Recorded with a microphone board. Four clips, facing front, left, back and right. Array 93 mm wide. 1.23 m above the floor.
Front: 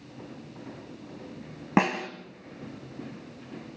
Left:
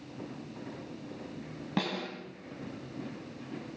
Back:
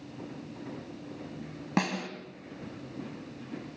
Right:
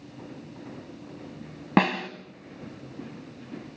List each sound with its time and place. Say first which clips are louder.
1.8 s a snare drum: right 11 dB, front 6 dB; 60° right, 2.5 m